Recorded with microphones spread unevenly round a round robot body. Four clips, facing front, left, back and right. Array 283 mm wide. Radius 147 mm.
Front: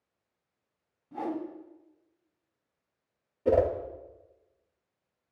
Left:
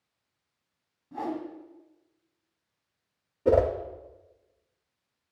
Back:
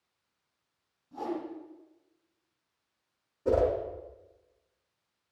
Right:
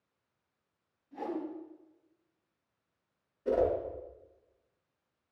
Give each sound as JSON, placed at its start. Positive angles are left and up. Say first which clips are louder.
{"t": 1.1, "sound": "a whoosh", "louder": "left 4 dB, front 1 dB", "azimuth_deg": 65, "distance_m": 2.0}
{"t": 3.5, "sound": "a whoosh", "louder": "left 6 dB, front 2 dB", "azimuth_deg": 80, "distance_m": 1.4}